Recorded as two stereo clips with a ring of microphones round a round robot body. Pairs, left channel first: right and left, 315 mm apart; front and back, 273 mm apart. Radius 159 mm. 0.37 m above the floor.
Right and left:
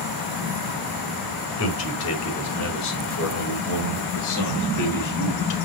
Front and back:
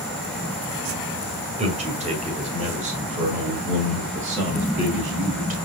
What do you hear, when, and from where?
1.6 s a man speaking: 115° right, 2 m